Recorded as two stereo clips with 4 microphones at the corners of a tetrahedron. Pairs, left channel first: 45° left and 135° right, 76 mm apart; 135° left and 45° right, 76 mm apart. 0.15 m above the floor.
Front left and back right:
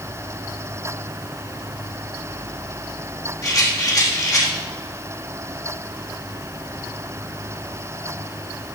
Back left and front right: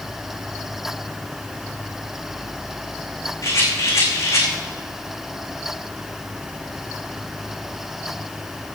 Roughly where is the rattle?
Left.